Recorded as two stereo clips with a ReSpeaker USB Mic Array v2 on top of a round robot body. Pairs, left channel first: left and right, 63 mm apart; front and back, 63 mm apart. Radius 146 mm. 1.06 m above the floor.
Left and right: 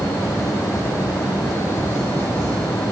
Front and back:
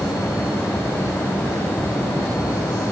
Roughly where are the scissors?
I don't hear scissors.